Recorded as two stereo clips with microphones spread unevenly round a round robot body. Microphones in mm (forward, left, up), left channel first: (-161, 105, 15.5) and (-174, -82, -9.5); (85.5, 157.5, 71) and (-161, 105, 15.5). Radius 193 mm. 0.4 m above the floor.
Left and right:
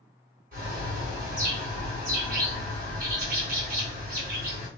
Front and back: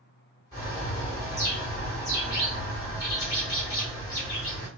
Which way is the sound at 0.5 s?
75° right.